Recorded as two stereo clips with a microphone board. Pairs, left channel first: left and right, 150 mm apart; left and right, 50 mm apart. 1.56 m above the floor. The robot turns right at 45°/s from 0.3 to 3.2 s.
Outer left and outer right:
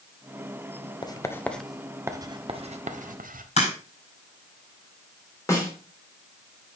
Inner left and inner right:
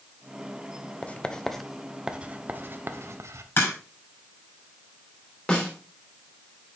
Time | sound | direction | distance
1.0 | writing | 30° left (ahead or behind) | 0.9 m
3.6 | a crack | 45° left (ahead or behind) | 5.5 m
5.5 | a snare drum | 20° left (ahead or behind) | 3 m